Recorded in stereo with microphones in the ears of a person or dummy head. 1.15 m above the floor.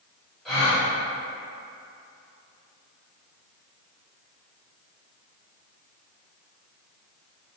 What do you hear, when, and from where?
0.5 s a gasp: centre (ahead or behind), 1.1 m